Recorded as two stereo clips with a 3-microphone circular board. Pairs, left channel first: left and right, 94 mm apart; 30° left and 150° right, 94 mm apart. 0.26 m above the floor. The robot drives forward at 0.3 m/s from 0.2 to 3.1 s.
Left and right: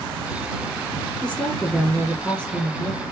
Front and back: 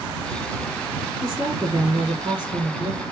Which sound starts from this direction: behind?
A woman speaking, at 1.2 s.